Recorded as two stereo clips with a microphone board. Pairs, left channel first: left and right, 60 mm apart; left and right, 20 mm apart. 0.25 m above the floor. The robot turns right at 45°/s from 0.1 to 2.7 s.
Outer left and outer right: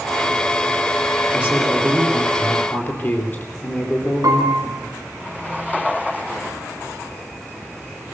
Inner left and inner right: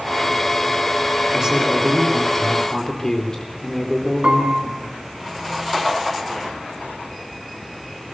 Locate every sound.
1.3 s a man speaking: 25° right, 4.5 m; by 4.9 s 40° left, 4.5 m
4.2 s a piano: 70° right (ahead or behind), 2.5 m